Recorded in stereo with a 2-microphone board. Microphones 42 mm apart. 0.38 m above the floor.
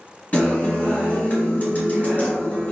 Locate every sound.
0.3 s a guitar: 35° left (ahead or behind), 1.7 m